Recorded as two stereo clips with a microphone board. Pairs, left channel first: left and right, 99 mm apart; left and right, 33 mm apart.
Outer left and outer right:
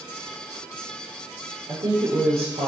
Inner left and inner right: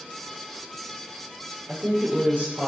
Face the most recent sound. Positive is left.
turn(degrees=-65)  # may be behind; listen again after turning